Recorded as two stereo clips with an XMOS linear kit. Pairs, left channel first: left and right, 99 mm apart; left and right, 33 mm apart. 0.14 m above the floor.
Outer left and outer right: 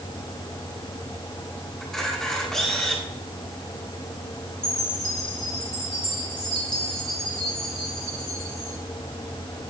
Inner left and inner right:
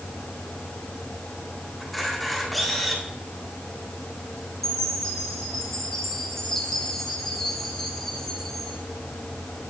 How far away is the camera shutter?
About 8.5 m.